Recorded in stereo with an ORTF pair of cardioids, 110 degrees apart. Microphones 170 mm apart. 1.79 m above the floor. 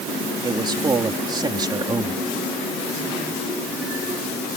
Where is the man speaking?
25° right.